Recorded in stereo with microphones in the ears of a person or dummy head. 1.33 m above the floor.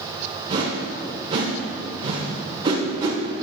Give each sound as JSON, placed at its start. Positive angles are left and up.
{"t": 0.5, "sound": "a whoosh", "side_deg": -20, "distance_m": 1.2}